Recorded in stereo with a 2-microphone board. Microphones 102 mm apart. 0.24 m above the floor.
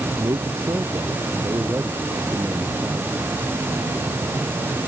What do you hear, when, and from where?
0.2 s a man speaking: 40° right (ahead or behind); by 3.1 s 15° right (ahead or behind)